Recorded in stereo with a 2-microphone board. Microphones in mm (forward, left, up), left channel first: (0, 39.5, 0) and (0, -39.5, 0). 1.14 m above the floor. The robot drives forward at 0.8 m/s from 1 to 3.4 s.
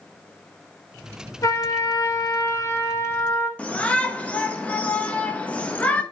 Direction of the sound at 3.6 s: 20° left (ahead or behind).